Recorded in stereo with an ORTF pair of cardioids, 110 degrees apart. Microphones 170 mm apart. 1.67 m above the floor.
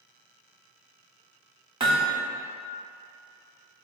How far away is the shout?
No shout in this recording.